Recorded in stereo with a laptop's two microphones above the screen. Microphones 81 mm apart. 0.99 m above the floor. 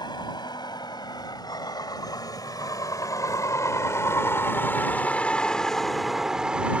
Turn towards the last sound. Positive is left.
turn(degrees=-15)  # may be behind; listen again after turning